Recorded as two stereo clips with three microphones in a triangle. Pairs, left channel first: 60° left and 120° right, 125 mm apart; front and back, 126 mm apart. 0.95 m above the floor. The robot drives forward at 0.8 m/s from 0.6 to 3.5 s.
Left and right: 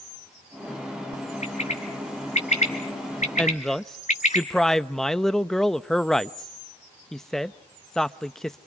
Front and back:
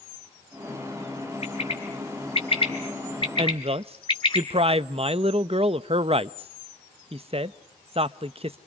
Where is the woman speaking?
140° left, 0.7 m; by 8.6 s 145° left, 0.7 m.